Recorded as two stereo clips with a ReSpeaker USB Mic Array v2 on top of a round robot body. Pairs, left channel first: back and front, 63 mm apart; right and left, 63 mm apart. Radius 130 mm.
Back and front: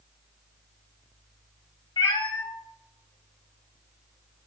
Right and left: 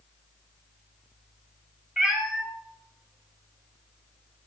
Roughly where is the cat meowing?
Behind.